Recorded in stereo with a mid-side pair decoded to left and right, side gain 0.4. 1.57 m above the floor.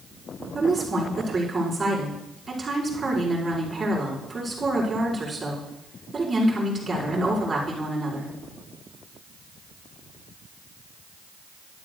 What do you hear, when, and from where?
0.6 s a woman speaking: 30° right, 5 m